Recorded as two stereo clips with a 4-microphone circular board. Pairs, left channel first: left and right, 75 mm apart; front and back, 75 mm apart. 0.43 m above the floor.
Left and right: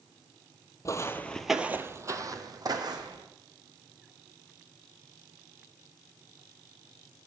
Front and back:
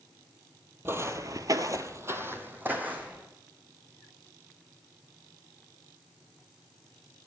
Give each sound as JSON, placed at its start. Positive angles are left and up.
{"t": 0.8, "sound": "footsteps", "azimuth_deg": 125, "distance_m": 0.8}